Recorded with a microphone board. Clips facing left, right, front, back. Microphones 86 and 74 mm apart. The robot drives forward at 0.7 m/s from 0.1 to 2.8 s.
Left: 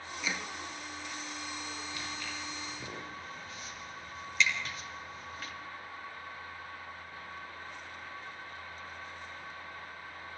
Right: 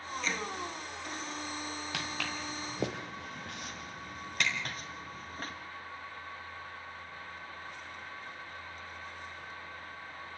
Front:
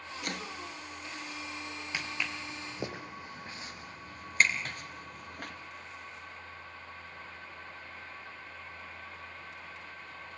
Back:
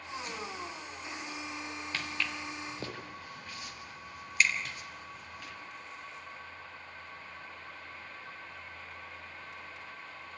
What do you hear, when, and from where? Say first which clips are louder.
0.2 s chopping: right 1 dB, front 5 dB; 10° left, 1.4 m
1.9 s footsteps: right 3 dB, even; 80° right, 4 m; by 5.5 s 40° right, 5 m